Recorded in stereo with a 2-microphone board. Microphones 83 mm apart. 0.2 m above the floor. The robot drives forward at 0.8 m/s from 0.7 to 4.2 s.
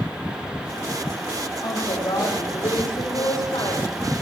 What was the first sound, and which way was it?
A woman speaking, 75° left (ahead or behind).